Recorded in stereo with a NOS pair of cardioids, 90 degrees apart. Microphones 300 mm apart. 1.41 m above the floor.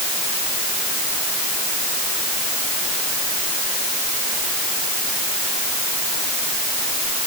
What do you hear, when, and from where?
Only background noise.